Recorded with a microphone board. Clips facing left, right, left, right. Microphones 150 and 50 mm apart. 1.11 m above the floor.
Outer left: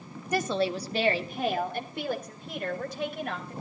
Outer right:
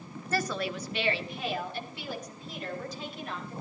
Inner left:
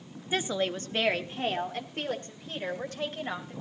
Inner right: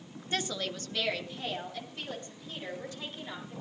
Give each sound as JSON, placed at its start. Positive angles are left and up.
{"t": 0.3, "sound": "a woman speaking", "side_deg": 15, "distance_m": 1.2}